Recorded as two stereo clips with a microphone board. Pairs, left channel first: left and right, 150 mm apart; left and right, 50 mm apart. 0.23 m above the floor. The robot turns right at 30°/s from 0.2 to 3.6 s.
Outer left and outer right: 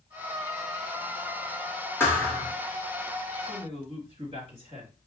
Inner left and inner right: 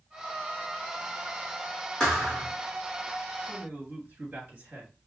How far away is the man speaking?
About 2.5 m.